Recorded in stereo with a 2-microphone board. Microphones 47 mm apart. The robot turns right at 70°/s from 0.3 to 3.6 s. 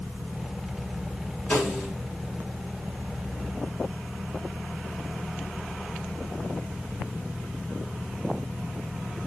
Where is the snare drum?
160° left, 3 m; by 1.9 s 170° right, 3 m.